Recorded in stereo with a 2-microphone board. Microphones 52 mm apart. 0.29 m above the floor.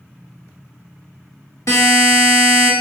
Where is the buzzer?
85° left, 1.3 m.